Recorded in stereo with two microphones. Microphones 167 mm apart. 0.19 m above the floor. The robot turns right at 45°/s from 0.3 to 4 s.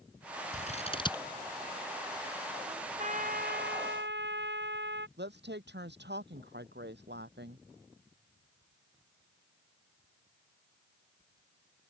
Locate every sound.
0.5 s scissors: 45° left (ahead or behind); by 1.2 s 20° left (ahead or behind)
2.7 s a trumpet: 155° right; by 5.1 s 95° right
5.2 s a woman speaking: 75° right (ahead or behind)